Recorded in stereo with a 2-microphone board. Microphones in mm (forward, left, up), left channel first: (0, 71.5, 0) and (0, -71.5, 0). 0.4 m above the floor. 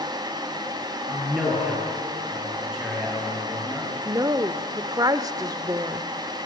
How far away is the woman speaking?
About 0.9 m.